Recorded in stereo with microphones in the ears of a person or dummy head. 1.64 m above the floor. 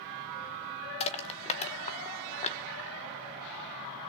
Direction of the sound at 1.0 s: 35° left (ahead or behind).